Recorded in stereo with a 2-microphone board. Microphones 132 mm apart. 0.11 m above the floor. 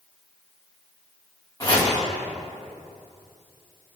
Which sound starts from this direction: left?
Chopping, at 1.6 s.